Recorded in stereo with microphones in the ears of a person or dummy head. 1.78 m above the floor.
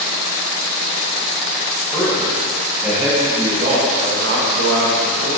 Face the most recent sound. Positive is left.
turn(degrees=-75)  # may be behind; listen again after turning